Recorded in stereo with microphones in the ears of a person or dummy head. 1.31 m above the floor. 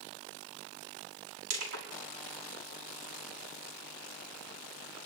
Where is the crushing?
75° right (ahead or behind), 6 m.